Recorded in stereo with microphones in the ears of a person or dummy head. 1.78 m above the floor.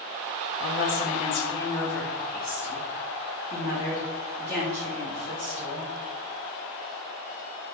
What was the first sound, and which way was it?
A woman speaking, 55° left (ahead or behind).